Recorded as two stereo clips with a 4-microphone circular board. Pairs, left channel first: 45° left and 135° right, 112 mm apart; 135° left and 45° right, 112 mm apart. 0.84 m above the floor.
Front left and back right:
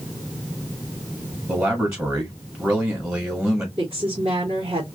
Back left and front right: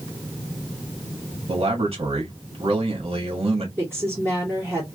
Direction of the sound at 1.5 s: 70° right.